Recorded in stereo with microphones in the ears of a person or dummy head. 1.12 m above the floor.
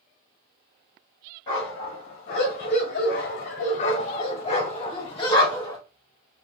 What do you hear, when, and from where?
1.5 s a dog barking: 30° left (ahead or behind), 1.6 m; by 5.8 s 25° left (ahead or behind), 1.8 m